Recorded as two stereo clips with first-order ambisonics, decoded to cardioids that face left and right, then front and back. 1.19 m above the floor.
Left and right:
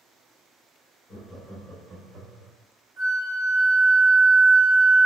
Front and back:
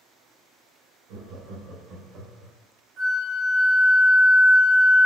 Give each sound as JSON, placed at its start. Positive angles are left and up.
{"t": 1.1, "sound": "laughter", "azimuth_deg": 170, "distance_m": 1.3}
{"t": 3.0, "sound": "a flute", "azimuth_deg": -160, "distance_m": 1.9}